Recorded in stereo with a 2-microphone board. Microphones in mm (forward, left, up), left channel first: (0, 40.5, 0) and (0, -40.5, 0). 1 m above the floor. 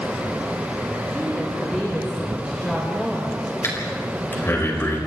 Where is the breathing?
30° left (ahead or behind), 5 m.